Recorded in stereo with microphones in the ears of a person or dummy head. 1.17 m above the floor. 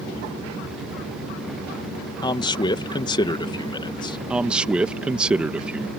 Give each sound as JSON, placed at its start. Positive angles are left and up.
{"t": 2.2, "sound": "a man speaking", "side_deg": 20}
{"t": 4.3, "sound": "a man speaking", "side_deg": -5}